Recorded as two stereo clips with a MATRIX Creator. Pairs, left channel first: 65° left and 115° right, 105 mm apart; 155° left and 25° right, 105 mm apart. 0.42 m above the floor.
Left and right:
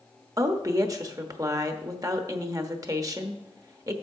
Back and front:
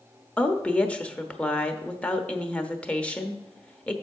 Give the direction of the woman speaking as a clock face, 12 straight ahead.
4 o'clock.